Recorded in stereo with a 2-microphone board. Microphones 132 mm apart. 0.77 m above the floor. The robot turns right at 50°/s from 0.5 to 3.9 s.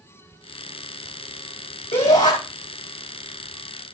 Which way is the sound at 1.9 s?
65° left (ahead or behind).